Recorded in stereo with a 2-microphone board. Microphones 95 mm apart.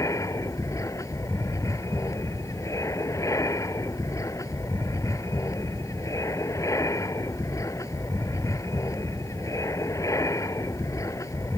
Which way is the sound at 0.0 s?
35° left (ahead or behind).